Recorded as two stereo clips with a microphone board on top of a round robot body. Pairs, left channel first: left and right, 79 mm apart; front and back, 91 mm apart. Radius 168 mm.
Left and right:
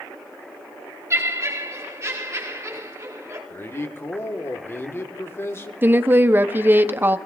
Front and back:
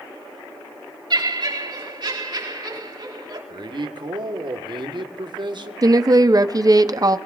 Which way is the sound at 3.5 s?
150° left.